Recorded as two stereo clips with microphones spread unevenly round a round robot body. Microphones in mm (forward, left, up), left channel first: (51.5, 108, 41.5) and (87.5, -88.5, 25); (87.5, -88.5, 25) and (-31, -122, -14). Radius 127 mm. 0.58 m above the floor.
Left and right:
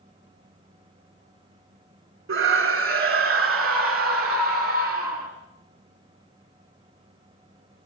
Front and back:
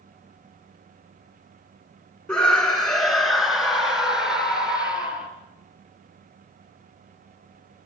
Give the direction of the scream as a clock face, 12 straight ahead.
2 o'clock.